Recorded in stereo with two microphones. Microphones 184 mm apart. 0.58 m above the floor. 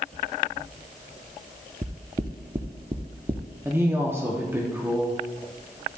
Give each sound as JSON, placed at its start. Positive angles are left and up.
{"t": 1.8, "sound": "knocking", "side_deg": -35, "distance_m": 0.5}
{"t": 3.6, "sound": "a woman speaking", "side_deg": -15, "distance_m": 0.8}